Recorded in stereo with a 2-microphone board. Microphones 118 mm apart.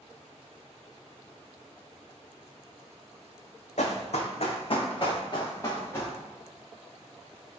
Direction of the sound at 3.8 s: 80° left.